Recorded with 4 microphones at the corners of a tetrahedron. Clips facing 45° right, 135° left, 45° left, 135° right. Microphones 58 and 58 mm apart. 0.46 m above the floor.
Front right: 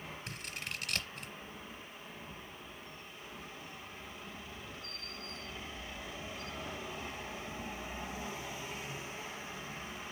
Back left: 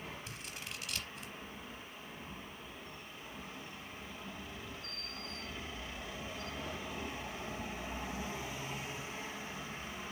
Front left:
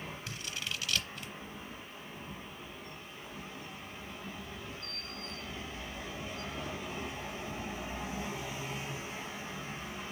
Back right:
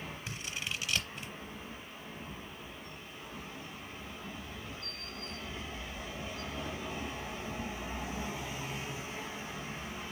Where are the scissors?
65° right, 0.8 m.